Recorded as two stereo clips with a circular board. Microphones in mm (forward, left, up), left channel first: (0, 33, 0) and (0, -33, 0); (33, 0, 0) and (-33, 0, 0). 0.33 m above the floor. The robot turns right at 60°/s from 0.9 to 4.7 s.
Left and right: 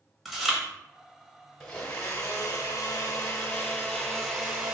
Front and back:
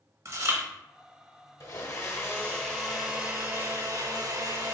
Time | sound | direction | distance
0.2 | chewing | 175° right | 0.8 m
1.6 | a blender | 20° left | 0.9 m